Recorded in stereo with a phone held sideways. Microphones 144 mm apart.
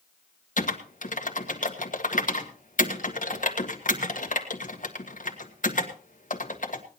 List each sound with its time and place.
0.6 s typing on a keyboard: 65° left (ahead or behind), 1.8 m